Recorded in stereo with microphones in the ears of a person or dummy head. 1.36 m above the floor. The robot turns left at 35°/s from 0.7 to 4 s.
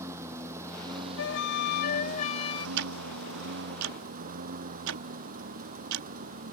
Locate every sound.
0.0 s a lawn mower: 20° right; by 6.5 s 135° right
1.2 s a flute: 75° left; by 2.7 s 25° left
2.8 s ticking: 65° right (ahead or behind); by 6.1 s 70° right (ahead or behind)